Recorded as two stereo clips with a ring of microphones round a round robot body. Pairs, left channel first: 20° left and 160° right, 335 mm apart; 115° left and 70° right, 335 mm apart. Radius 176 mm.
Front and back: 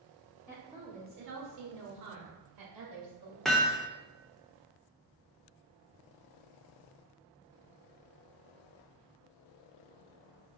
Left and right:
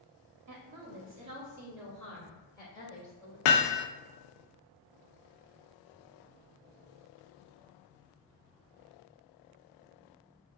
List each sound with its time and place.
0.5 s a woman speaking: 55° right, 1.0 m; by 3.4 s 175° right, 2.5 m
3.5 s hammering: 110° left, 0.5 m